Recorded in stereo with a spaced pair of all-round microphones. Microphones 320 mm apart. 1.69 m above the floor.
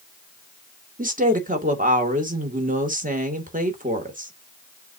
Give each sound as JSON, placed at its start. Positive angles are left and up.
{"t": 1.0, "sound": "a woman speaking", "side_deg": -25, "distance_m": 2.0}